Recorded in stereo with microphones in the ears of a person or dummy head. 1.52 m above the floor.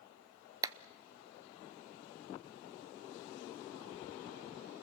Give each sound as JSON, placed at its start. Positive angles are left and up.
{"t": 0.6, "sound": "a clap", "side_deg": -20, "distance_m": 0.6}